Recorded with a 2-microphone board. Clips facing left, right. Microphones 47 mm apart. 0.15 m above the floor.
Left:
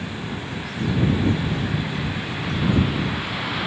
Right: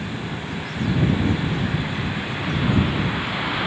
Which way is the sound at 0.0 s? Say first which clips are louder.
Right 1 dB; 5° right (ahead or behind).